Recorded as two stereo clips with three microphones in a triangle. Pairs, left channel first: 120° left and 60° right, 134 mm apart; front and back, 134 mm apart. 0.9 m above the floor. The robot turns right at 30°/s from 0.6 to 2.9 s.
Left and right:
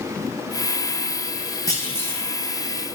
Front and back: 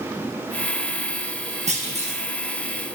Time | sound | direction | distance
1.7 | a clunk | straight behind | 1.3 m